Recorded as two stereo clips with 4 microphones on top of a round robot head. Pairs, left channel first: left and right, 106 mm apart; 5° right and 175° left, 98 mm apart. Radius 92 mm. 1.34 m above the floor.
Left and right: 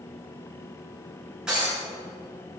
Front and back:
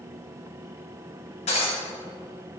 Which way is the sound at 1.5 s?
5° right.